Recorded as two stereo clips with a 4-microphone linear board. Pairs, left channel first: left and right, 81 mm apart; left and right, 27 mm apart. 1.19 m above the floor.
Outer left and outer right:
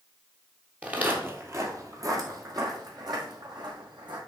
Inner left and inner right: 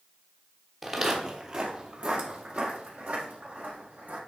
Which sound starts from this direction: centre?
Footsteps, at 0.8 s.